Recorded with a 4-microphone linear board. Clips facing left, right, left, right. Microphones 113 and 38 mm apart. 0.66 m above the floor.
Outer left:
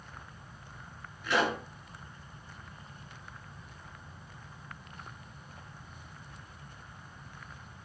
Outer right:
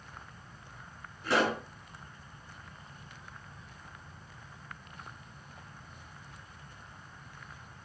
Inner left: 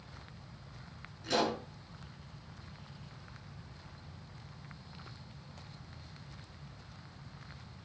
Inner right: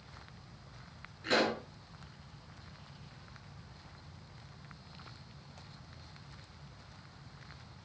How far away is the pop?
About 6 m.